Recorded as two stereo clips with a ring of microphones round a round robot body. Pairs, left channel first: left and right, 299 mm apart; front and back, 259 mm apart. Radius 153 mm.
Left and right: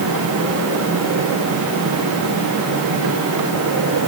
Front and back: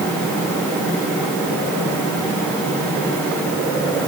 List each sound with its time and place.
Only background noise.